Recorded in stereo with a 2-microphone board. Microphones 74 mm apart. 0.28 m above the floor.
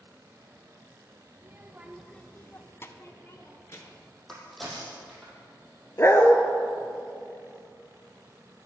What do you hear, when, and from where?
1.4 s a child speaking: 35° right (ahead or behind), 1.0 m; by 4.1 s 40° left (ahead or behind), 3 m
4.3 s a crack: centre (ahead or behind), 4.5 m
6.0 s a dog barking: 35° left (ahead or behind), 1.2 m